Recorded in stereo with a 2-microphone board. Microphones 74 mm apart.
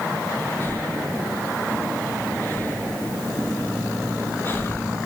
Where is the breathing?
30° left (ahead or behind), 2 m.